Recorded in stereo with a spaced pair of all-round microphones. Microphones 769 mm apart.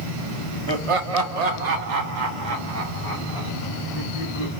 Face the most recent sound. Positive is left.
turn(degrees=-50)  # may be behind; listen again after turning